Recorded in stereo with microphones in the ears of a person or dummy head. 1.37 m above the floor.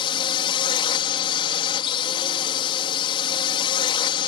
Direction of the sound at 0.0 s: 25° left (ahead or behind).